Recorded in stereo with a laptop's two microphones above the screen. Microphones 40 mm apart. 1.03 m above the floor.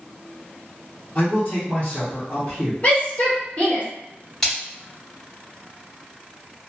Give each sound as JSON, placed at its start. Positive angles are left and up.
{"t": 1.1, "sound": "a man speaking", "side_deg": 40, "distance_m": 0.9}
{"t": 2.8, "sound": "a shout", "side_deg": 35, "distance_m": 1.2}
{"t": 4.4, "sound": "a splash", "side_deg": 5, "distance_m": 1.9}